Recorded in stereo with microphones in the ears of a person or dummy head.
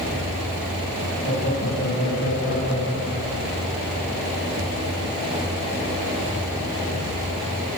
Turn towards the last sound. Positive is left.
turn(degrees=40)  # may be behind; listen again after turning